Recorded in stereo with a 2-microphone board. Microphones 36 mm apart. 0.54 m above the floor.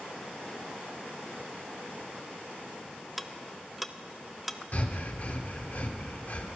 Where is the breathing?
45° left (ahead or behind), 1.2 m.